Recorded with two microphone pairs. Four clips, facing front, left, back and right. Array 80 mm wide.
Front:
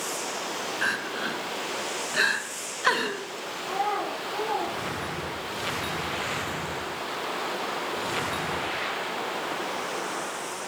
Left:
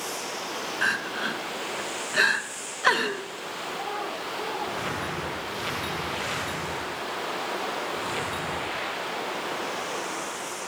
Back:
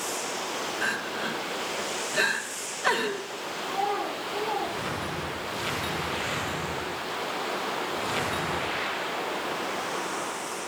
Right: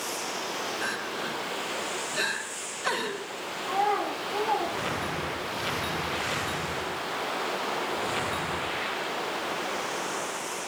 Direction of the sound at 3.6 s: 55° right.